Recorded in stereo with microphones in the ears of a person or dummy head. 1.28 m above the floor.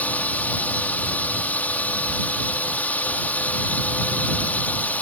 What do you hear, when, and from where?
0.0 s a drone: 10° left (ahead or behind)